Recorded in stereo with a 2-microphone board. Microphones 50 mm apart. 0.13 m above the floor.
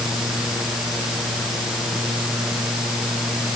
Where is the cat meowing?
I don't hear a cat meowing.